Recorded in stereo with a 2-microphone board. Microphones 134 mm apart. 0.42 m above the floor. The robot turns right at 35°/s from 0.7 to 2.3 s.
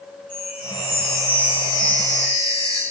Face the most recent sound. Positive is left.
turn(degrees=135)